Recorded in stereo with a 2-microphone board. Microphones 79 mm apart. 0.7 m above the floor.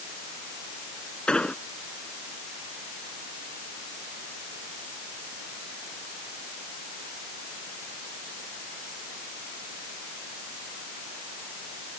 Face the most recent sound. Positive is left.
turn(degrees=10)  # may be behind; listen again after turning